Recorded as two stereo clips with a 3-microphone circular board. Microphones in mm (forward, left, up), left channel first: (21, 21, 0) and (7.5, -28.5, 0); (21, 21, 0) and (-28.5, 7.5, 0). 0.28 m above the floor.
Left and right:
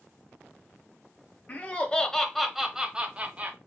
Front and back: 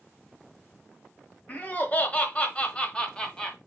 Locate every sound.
1.5 s laughter: 45° left, 1.2 m; by 3.6 s 60° right, 1.4 m